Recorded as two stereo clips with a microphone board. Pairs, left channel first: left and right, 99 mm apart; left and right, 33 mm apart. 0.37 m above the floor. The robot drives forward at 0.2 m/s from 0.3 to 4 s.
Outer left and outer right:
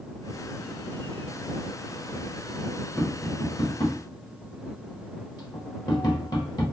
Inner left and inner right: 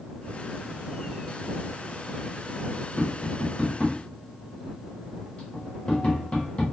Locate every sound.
3.0 s tapping: 35° left (ahead or behind), 1.2 m